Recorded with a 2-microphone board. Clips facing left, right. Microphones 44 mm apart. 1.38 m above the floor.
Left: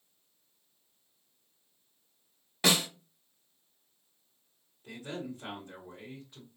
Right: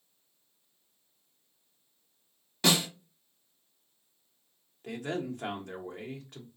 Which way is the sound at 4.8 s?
70° right (ahead or behind).